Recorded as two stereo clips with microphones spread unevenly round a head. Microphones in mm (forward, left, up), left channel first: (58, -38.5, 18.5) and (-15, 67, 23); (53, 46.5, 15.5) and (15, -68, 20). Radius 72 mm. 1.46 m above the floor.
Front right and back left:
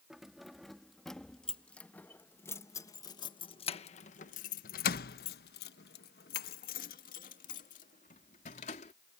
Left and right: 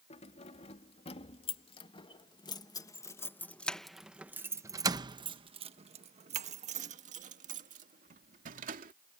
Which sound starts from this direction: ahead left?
Keys jangling, at 0.1 s.